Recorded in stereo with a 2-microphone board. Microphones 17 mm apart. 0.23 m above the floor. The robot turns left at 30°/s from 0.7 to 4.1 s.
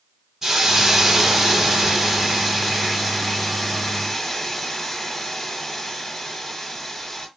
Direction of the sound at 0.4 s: 25° right (ahead or behind).